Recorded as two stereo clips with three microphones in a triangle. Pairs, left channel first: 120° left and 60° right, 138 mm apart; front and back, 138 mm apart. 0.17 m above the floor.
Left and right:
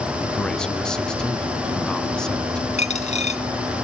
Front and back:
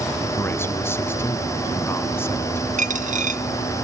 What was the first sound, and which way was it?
A man speaking, 45° left.